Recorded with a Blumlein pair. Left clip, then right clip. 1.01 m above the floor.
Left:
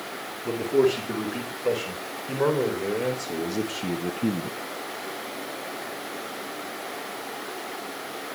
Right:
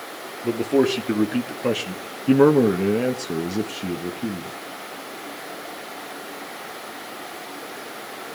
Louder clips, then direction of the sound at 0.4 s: Right 2 dB; 70° right.